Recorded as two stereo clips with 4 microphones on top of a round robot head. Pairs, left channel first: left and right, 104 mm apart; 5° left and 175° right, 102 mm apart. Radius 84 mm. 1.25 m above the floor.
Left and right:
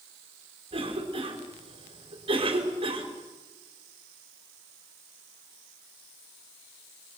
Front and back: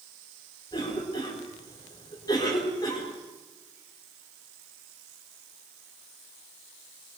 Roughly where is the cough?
Ahead right.